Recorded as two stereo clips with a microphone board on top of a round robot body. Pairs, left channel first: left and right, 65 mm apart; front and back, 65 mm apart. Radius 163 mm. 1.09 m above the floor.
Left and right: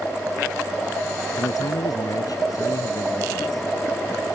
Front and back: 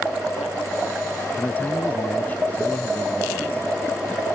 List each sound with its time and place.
1.4 s a man speaking: 65° left